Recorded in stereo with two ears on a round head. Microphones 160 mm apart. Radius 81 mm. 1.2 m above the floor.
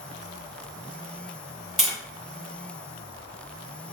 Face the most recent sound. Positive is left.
turn(degrees=0)  # may be behind; listen again after turning